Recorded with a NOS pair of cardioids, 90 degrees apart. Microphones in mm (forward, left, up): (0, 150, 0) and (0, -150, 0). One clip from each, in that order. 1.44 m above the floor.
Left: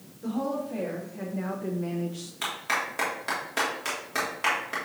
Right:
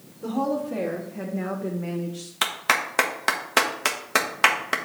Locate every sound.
0.2 s a woman speaking: 35° right, 1.4 m; by 2.3 s 20° left, 0.7 m
2.4 s a clap: 65° right, 1.2 m